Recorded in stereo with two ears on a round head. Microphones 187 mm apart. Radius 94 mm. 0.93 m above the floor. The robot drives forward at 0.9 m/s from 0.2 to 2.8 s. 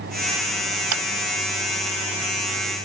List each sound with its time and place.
0.9 s a clap: 85° right